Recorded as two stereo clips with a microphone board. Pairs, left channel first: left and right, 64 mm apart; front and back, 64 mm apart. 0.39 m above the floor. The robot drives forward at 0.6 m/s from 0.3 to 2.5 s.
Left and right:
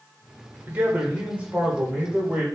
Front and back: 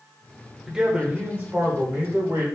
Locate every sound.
0.7 s a man speaking: 110° right, 0.9 m; by 2.5 s 160° right, 1.5 m